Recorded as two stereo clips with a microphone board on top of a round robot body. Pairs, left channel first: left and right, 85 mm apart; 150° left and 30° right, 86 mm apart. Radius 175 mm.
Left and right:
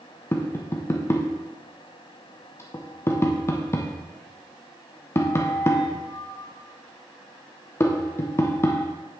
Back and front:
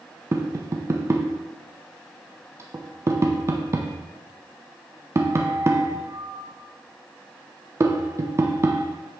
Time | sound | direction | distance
0.3 | tapping | 30° left | 0.6 m